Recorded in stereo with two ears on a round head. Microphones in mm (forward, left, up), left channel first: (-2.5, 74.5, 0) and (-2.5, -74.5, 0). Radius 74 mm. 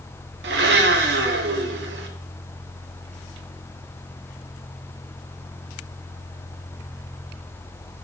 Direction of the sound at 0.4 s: 75° right (ahead or behind).